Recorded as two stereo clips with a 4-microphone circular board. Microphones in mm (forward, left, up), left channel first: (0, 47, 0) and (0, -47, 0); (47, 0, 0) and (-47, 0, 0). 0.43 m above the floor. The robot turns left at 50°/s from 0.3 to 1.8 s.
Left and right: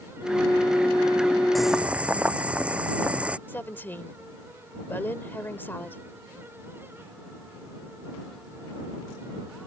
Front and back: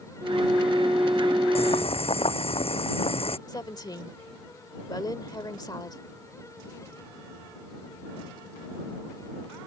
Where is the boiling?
Straight ahead; by 3.4 s 10° right.